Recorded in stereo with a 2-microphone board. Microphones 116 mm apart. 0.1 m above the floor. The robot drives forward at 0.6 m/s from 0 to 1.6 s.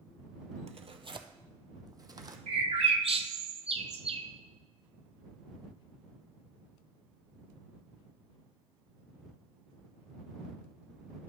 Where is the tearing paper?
70° right (ahead or behind), 0.5 m; by 2.4 s 35° right (ahead or behind), 0.8 m.